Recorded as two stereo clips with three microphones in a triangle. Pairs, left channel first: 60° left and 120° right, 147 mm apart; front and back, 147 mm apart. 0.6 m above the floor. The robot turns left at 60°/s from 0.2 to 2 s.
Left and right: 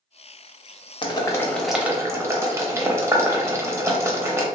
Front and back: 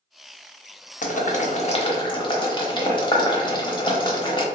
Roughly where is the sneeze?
No sneeze in this recording.